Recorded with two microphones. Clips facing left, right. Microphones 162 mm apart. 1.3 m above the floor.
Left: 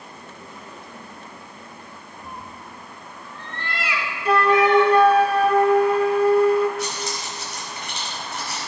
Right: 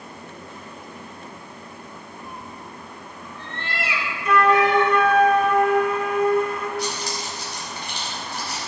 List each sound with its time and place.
2.2 s a cat meowing: 35° left (ahead or behind), 0.9 m; by 4.9 s 40° right (ahead or behind), 2.5 m
4.2 s a flute: 35° left (ahead or behind), 0.7 m
6.8 s keys jangling: 35° right (ahead or behind), 4.5 m